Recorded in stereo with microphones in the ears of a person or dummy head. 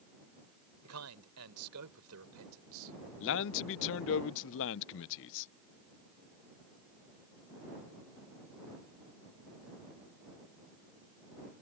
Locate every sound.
0.8 s a man speaking: 85° right; by 3.1 s 75° right (ahead or behind)
3.2 s a man speaking: 60° left (ahead or behind)